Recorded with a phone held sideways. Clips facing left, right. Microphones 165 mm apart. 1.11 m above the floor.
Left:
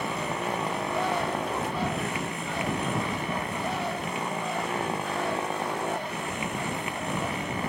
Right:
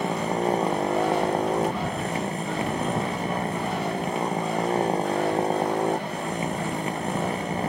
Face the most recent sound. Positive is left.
turn(degrees=-35)  # may be behind; listen again after turning